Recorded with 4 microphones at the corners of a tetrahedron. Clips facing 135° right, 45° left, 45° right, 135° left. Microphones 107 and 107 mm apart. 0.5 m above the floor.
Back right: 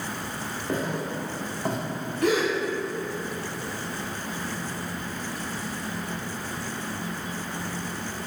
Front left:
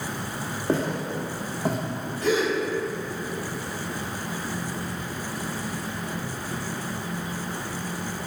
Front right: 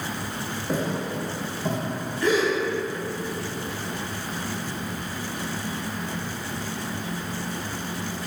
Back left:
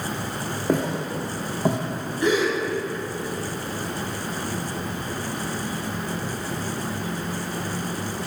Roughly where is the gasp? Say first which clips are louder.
Even, back left 1 dB; behind right.